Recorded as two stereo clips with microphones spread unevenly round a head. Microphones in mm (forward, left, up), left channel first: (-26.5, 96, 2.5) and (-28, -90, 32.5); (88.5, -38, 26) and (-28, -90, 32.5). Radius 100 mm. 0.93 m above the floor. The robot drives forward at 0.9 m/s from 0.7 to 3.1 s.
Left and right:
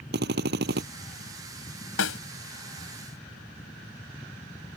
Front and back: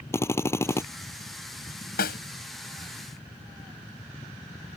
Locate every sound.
0.1 s a drill: 45° right
2.0 s a snare drum: 55° left; by 2.2 s 60° left